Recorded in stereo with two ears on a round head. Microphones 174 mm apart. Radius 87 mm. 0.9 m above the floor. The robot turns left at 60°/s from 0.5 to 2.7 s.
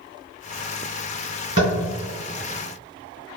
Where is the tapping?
30° right (ahead or behind), 2.0 m; by 1.8 s 45° right (ahead or behind), 2.0 m.